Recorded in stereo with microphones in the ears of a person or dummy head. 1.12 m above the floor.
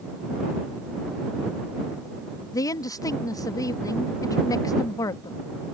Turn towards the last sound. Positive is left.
turn(degrees=20)  # may be behind; listen again after turning